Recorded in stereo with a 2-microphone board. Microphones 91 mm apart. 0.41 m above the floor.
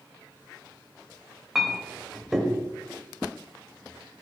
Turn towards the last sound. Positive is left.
turn(degrees=-5)  # may be behind; listen again after turning